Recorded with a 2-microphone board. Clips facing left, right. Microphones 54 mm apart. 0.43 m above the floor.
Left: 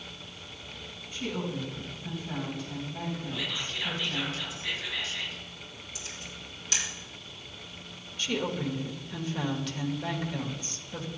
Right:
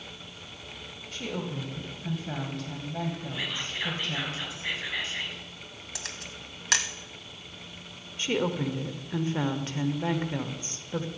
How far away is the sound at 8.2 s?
About 1.0 m.